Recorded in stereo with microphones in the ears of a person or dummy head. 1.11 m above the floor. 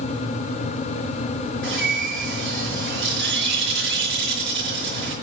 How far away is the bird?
About 6 m.